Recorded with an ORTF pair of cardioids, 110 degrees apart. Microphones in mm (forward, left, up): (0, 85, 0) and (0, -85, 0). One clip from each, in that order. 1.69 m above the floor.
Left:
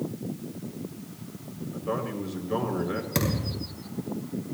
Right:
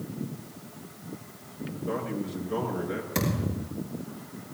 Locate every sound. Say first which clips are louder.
1.7 s a man speaking: left 1 dB; 30° left, 6 m
3.1 s a thud: left 1 dB; 30° left, 9.5 m